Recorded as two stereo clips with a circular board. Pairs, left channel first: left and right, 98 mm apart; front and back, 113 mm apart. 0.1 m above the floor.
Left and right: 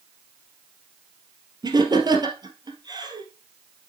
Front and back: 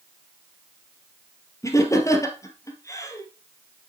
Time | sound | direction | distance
1.6 | laughter | 55° right | 2 m